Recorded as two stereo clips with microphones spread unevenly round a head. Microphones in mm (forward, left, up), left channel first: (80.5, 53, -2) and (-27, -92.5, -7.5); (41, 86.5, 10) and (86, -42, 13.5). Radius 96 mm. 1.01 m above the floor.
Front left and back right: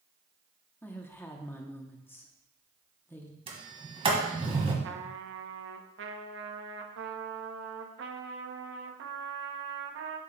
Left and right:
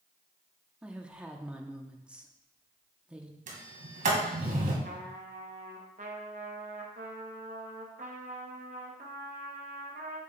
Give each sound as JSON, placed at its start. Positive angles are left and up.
{"t": 0.8, "sound": "a woman speaking", "azimuth_deg": -5, "distance_m": 0.7}
{"t": 3.5, "sound": "a sliding door", "azimuth_deg": -70, "distance_m": 1.8}
{"t": 4.8, "sound": "a trumpet", "azimuth_deg": -120, "distance_m": 0.8}